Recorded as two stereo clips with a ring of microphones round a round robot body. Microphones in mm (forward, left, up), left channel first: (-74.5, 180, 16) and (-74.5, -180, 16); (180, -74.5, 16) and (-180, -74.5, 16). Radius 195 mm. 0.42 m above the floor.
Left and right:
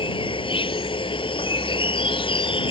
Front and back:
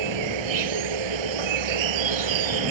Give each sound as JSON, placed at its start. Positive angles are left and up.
{"t": 0.0, "sound": "an insect", "azimuth_deg": 165}